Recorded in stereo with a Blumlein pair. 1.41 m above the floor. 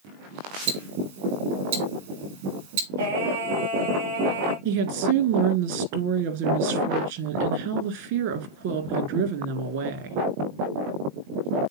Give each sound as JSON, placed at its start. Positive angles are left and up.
{"t": 0.7, "sound": "ticking", "azimuth_deg": -55, "distance_m": 1.9}
{"t": 3.0, "sound": "singing", "azimuth_deg": -60, "distance_m": 4.0}
{"t": 4.7, "sound": "a woman speaking", "azimuth_deg": -50, "distance_m": 1.8}